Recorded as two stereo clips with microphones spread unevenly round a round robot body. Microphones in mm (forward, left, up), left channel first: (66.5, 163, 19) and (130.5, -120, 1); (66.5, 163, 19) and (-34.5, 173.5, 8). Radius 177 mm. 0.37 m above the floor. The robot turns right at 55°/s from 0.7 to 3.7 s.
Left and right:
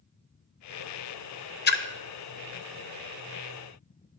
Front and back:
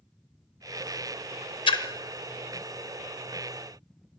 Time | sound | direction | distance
1.7 | a splash | 40° left | 0.6 m